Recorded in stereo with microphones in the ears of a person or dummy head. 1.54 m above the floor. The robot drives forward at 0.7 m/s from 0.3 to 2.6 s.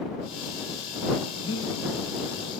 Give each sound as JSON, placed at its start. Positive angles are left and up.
{"t": 1.4, "sound": "breathing", "side_deg": 25, "distance_m": 0.8}